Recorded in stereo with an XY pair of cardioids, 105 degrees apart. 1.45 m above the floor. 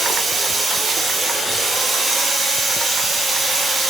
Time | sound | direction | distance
0.0 | running water | 45° right | 1.1 m